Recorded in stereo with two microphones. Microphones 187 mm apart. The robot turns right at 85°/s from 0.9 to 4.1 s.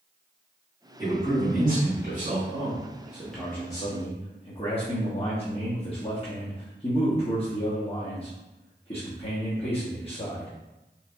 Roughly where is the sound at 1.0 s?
Behind.